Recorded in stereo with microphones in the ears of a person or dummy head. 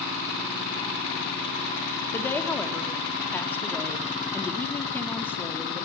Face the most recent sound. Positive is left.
turn(degrees=10)  # may be behind; listen again after turning